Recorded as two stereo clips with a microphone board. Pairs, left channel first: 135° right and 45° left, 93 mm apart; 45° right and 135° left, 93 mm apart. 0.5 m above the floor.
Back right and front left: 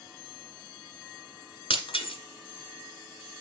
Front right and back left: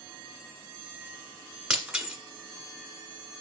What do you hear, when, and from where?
1.7 s breaking glass: 145° right, 1.8 m